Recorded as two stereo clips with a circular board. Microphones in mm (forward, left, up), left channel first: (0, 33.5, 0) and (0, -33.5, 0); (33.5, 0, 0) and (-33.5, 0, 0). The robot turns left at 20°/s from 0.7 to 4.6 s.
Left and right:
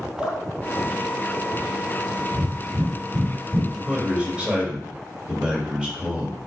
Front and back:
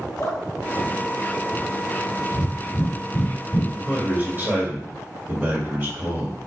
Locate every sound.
0.2 s dripping: 10° right, 2 m; by 2.1 s 40° right, 2 m
2.3 s breathing: 25° right, 1.8 m; by 3.6 s 55° right, 1.8 m
3.7 s a man speaking: 135° right, 1.5 m; by 6.4 s 155° right, 1.5 m